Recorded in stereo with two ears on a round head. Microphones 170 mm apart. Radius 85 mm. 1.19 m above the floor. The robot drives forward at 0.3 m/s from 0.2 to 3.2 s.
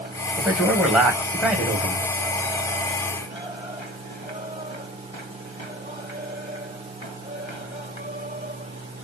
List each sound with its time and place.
0.4 s a man speaking: 5° right (ahead or behind), 1.2 m